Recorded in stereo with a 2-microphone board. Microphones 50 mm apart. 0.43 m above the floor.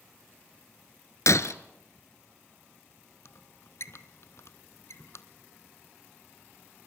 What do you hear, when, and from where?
1.3 s breaking glass: 75° left (ahead or behind), 0.9 m
3.2 s a squeak: 65° left (ahead or behind), 1.0 m